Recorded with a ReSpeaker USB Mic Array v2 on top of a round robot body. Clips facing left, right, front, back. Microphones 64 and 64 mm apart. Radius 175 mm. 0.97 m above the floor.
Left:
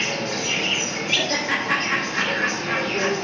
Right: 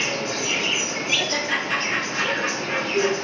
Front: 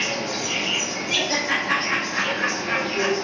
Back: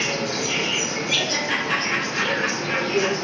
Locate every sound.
0.0 s an insect: 170° right, 1.6 m
1.1 s laughter: 55° left, 1.0 m